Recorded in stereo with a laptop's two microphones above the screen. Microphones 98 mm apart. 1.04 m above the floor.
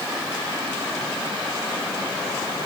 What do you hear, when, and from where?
Only background noise.